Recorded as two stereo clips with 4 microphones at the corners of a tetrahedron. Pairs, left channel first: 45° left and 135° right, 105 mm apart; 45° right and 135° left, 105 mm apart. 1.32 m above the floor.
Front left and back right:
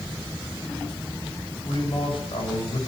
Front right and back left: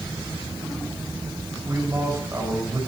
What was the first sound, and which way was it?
A man speaking, 75° left.